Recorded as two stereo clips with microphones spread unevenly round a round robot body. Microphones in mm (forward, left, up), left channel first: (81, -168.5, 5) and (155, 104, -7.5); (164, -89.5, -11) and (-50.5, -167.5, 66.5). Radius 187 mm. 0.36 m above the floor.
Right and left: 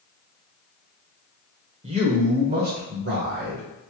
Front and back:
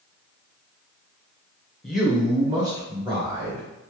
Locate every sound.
1.8 s a man speaking: 55° left, 1.0 m; by 3.7 s 125° left, 1.6 m